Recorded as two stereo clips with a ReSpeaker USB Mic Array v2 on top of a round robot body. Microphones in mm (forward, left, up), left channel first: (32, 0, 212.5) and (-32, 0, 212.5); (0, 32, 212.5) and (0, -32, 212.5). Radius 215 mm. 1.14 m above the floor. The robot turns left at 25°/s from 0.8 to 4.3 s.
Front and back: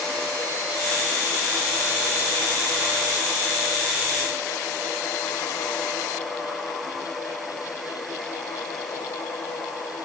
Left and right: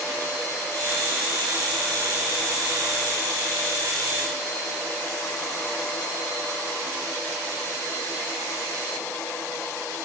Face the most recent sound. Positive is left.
No sound to turn to.